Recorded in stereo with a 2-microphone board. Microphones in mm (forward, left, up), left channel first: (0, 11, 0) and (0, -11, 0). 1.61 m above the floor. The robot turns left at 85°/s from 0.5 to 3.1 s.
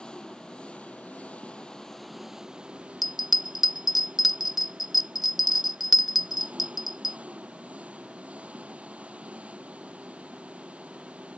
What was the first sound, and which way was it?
An engine running, 140° left.